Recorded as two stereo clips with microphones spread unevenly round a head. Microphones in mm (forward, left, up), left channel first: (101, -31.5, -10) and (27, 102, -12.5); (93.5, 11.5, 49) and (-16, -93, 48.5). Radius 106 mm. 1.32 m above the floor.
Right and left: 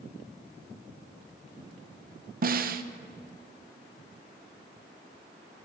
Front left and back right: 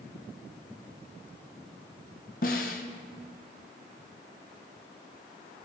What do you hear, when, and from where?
2.4 s a snare drum: 95° left, 0.6 m